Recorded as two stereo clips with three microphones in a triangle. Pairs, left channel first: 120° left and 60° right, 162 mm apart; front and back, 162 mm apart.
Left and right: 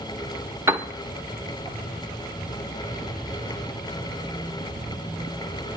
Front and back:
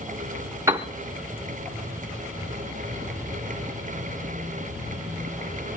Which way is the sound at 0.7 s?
120° right.